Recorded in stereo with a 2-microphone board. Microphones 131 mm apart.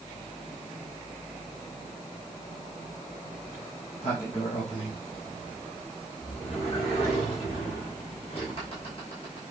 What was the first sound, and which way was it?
A sliding door, 45° left (ahead or behind).